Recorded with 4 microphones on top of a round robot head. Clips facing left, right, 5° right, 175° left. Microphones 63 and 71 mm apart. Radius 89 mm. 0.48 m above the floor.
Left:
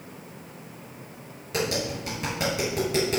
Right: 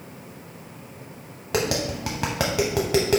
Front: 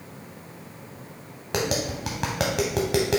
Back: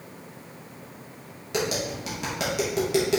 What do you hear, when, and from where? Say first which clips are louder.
1.5 s tapping: right 3 dB, front 1 dB; 50° right, 0.7 m